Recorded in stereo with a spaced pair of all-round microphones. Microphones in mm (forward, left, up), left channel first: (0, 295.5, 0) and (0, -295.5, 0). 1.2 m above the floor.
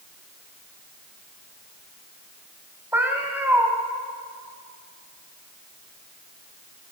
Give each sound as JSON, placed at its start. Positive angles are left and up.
{"t": 2.9, "sound": "a cat meowing", "side_deg": -5, "distance_m": 2.0}